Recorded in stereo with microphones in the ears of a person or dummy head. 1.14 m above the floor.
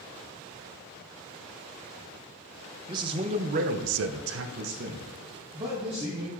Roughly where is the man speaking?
Right.